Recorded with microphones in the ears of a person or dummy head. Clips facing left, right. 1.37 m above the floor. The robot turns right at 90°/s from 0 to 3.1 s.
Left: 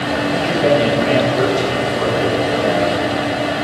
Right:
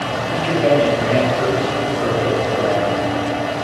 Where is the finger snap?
I don't hear a finger snap.